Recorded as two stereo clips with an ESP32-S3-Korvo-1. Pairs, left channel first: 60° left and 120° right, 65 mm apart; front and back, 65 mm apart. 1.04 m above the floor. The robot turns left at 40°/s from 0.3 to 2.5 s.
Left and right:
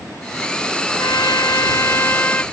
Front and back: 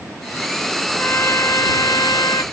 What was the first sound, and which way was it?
A trumpet, 55° left.